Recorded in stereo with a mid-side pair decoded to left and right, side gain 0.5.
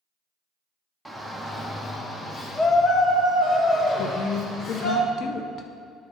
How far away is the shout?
About 1.5 m.